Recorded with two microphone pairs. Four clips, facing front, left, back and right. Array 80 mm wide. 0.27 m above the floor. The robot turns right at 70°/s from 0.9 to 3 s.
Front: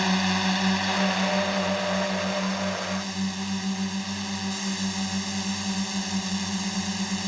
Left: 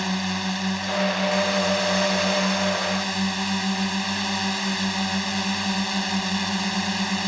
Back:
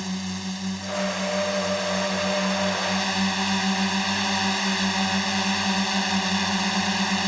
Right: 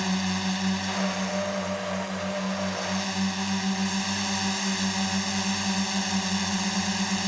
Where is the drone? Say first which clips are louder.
Left 1 dB, front 7 dB; 15° left; by 7.3 s 160° left.